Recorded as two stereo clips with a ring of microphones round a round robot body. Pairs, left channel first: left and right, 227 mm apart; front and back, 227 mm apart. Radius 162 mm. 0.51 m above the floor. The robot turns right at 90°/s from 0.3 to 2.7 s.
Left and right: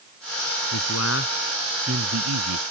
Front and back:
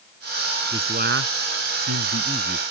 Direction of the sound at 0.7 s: 105° left.